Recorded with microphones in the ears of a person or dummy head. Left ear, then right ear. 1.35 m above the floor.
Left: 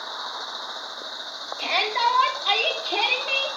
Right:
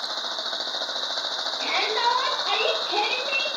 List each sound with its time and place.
1.6 s a shout: 90° left, 3.5 m; by 3.5 s 70° left (ahead or behind), 3 m